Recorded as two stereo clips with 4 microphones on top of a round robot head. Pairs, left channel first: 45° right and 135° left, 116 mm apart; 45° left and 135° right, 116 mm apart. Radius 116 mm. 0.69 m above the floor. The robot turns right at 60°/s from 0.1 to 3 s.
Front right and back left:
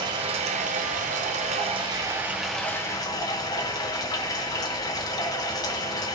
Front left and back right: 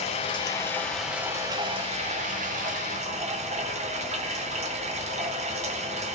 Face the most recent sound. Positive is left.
turn(degrees=-105)